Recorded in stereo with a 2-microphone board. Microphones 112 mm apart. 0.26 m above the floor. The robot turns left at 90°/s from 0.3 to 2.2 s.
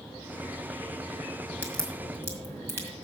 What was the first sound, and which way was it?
A crack, 15° left (ahead or behind).